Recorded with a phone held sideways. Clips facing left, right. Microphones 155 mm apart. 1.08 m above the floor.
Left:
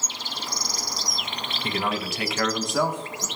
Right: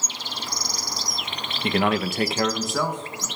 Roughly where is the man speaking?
Right.